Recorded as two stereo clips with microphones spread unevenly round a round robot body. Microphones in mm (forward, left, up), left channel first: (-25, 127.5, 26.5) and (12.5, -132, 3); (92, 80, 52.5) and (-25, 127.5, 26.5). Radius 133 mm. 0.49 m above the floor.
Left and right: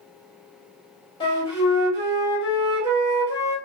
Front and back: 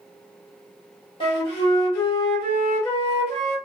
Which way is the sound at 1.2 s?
25° left.